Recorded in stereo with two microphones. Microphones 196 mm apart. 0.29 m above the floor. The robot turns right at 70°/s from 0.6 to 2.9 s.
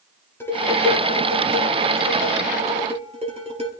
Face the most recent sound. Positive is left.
turn(degrees=-30)